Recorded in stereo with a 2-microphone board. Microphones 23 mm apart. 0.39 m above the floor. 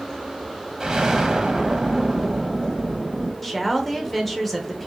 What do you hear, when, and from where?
0.8 s an explosion: 30° right (ahead or behind), 0.9 m
3.4 s a woman speaking: 10° left (ahead or behind), 1.0 m